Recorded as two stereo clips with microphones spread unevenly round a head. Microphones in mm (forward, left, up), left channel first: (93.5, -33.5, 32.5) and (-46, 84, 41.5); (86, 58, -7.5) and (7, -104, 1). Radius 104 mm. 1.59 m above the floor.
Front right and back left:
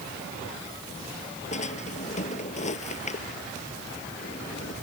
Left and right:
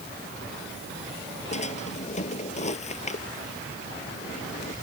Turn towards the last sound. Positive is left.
turn(degrees=10)